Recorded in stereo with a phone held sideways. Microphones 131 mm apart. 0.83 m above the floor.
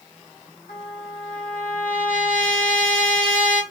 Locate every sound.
0.7 s a trumpet: 75° left (ahead or behind), 1.0 m